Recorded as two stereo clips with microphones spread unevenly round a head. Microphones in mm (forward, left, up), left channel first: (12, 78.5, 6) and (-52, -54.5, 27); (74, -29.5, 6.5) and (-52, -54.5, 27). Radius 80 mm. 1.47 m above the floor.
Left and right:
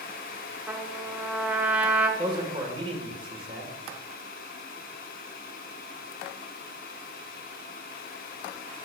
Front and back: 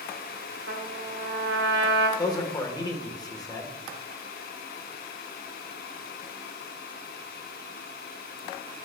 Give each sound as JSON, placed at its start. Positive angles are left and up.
{"t": 0.7, "sound": "a trumpet", "azimuth_deg": 160, "distance_m": 0.9}
{"t": 2.2, "sound": "a man speaking", "azimuth_deg": -55, "distance_m": 1.3}